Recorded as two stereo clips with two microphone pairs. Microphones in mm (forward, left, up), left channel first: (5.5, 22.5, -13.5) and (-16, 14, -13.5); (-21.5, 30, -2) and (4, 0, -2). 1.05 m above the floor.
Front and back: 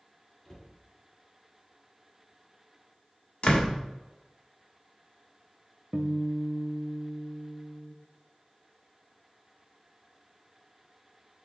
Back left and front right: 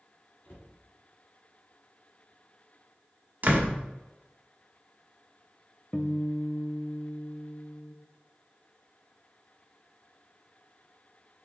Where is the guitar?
145° right, 0.6 m.